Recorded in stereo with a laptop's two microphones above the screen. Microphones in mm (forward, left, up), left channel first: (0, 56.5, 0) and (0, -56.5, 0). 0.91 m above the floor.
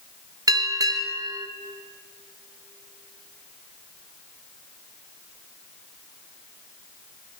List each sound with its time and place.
0.5 s a bell: 35° right (ahead or behind), 1.0 m